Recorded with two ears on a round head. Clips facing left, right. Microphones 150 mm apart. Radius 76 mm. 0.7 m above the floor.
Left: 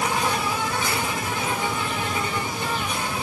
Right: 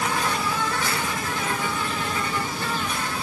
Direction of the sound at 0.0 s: 15° left (ahead or behind).